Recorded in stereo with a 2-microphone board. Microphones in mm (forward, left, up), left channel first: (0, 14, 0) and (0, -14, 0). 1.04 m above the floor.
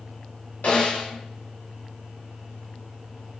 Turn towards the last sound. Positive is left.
turn(degrees=75)  # may be behind; listen again after turning